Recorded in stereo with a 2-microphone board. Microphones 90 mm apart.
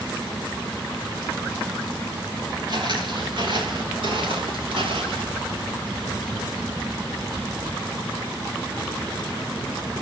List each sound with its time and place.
2.7 s footsteps: 50° right (ahead or behind), 7.5 m; by 5.3 s 75° right (ahead or behind), 8.5 m